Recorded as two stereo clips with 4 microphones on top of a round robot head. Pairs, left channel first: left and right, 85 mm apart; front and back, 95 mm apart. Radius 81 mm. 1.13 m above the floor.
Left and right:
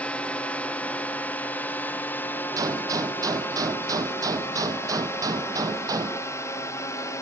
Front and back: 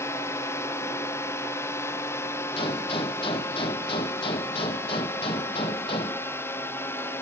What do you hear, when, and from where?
0.0 s a drone: 30° left; by 7.2 s 55° left
2.6 s a gunshot: 45° right